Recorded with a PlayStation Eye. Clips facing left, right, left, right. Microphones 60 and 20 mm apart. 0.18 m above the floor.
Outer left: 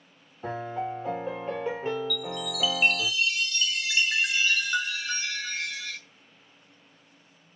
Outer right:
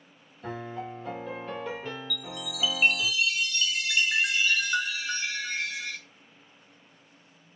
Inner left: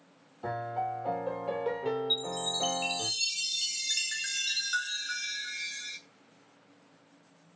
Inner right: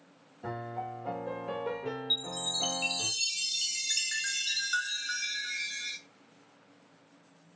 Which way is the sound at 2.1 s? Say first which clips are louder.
Outer left 5 dB, inner left 1 dB; 5° right (ahead or behind).